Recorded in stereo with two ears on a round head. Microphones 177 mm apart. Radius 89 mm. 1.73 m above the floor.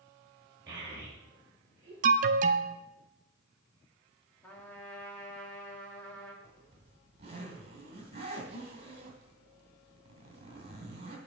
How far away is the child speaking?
About 4 m.